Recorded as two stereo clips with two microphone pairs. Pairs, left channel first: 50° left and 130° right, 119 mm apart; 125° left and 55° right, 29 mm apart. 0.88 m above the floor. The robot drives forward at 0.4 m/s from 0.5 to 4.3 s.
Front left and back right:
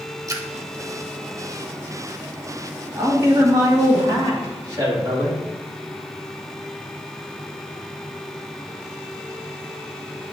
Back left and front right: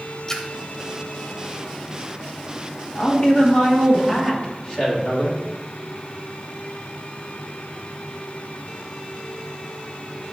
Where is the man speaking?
175° left, 1.3 m.